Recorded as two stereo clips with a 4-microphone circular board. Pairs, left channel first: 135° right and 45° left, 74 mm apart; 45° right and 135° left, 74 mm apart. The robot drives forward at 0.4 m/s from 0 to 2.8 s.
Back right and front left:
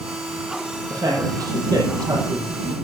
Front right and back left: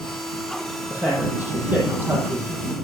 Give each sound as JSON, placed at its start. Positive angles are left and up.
{"t": 0.9, "sound": "a man speaking", "azimuth_deg": 65, "distance_m": 6.5}